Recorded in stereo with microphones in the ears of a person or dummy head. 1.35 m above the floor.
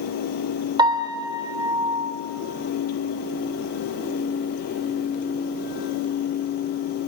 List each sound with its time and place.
0.8 s a piano: 25° right (ahead or behind), 2.5 m